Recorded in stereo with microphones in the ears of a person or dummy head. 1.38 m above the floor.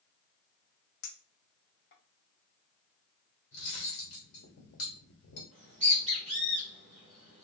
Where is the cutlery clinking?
60° left (ahead or behind), 1.3 m.